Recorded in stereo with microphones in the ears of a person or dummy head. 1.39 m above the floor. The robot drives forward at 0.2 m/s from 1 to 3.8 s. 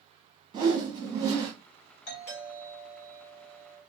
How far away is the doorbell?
About 1.2 m.